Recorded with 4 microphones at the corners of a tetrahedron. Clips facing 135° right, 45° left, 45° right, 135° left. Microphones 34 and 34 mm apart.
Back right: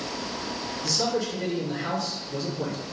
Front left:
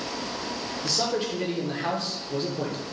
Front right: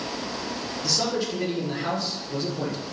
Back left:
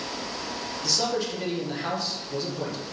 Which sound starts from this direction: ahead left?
A man speaking, at 0.8 s.